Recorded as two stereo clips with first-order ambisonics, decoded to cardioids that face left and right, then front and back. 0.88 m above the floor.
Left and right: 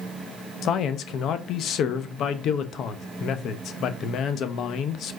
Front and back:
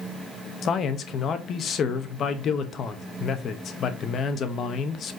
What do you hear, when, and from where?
0.6 s a man speaking: 50° left, 0.8 m